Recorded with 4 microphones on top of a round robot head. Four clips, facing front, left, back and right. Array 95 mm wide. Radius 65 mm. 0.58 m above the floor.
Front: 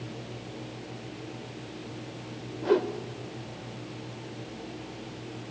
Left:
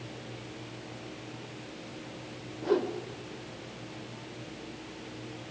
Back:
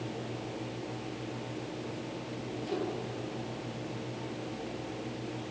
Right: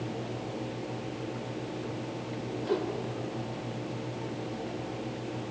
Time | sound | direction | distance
2.6 | a whoosh | 10° left | 2.5 m